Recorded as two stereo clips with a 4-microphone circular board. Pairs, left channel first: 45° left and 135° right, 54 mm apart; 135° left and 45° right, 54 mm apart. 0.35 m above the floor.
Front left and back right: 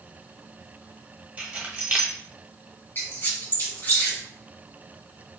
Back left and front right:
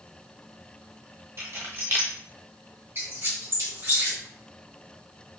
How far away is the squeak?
About 1.6 m.